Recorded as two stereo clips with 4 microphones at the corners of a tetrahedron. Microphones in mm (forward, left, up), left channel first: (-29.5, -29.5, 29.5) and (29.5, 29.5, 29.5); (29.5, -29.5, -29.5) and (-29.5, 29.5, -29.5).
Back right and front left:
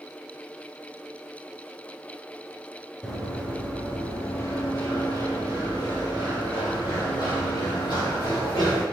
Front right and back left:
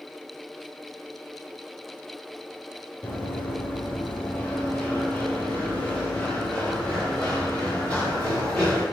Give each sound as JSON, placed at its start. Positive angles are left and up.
{"t": 3.0, "sound": "running footsteps", "azimuth_deg": -55, "distance_m": 1.2}